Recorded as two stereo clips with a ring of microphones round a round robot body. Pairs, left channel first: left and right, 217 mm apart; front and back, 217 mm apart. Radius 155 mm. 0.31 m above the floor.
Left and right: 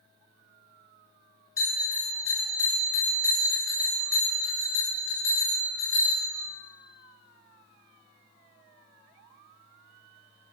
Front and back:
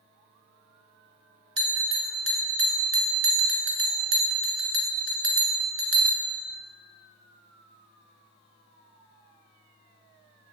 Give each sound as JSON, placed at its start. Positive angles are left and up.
{"t": 1.6, "sound": "a bell", "azimuth_deg": 170, "distance_m": 1.8}